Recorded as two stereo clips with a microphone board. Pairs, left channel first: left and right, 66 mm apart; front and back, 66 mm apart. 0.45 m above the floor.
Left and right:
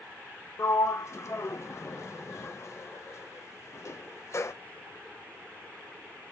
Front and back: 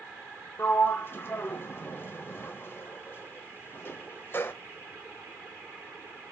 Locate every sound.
0.6 s a sliding door: 50° left, 0.9 m